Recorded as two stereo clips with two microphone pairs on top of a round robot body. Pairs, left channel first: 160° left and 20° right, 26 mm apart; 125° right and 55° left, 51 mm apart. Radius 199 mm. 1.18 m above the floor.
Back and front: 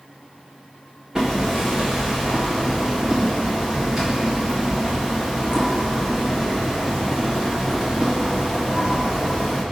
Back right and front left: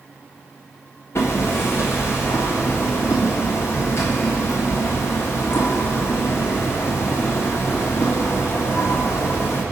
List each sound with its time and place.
1.1 s hammering: 85° right, 1.8 m